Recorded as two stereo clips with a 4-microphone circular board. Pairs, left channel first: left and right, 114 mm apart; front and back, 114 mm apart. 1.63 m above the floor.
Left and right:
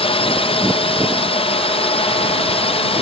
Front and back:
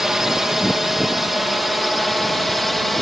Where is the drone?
95° left; by 3.0 s 90° left.